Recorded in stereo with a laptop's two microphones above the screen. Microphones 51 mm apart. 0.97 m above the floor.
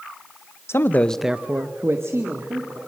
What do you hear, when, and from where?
0.7 s a man speaking: 55° left (ahead or behind), 0.9 m; by 2.8 s 65° right (ahead or behind), 2.5 m